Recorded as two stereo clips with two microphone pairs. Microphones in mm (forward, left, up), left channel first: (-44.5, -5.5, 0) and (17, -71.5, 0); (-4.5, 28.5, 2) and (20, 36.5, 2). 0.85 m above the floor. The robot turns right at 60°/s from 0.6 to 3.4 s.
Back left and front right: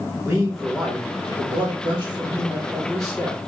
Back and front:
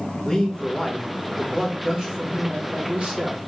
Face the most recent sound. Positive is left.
turn(degrees=40)